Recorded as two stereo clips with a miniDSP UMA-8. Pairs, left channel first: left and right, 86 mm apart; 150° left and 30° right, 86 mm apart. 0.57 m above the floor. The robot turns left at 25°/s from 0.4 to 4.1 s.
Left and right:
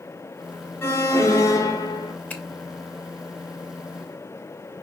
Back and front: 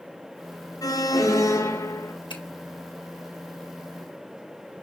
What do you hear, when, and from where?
0.8 s an alarm: 140° left, 2 m; by 2.1 s 110° left, 2 m
2.3 s a finger snap: 160° left, 3 m